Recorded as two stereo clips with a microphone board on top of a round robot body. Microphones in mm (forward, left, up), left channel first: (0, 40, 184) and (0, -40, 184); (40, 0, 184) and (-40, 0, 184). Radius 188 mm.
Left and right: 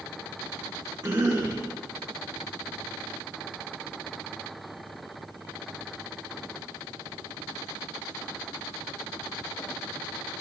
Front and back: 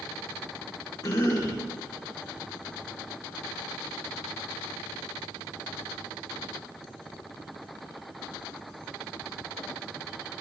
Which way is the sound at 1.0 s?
45° right.